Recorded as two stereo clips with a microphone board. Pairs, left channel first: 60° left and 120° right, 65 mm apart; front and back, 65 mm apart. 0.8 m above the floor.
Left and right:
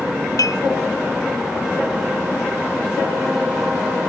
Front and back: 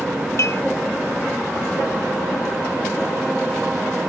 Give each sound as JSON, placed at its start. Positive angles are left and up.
{"t": 0.4, "sound": "dishes clattering", "azimuth_deg": 40}